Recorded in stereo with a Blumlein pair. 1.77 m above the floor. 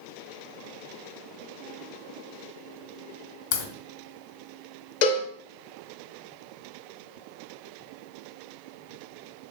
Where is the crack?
50° left, 0.8 m.